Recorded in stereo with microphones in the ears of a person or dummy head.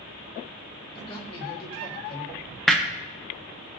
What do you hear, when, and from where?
0.9 s a man speaking: 30° left (ahead or behind), 4.5 m
2.7 s hammering: centre (ahead or behind), 0.6 m